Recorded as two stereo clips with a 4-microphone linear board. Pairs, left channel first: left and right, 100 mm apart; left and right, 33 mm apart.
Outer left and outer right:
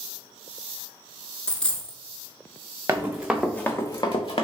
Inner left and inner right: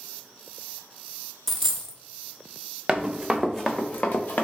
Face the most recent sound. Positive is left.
turn(degrees=65)  # may be behind; listen again after turning